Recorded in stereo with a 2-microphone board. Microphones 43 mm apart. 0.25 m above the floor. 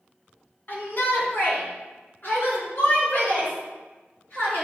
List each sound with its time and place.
0.7 s a shout: 50° left (ahead or behind), 2.5 m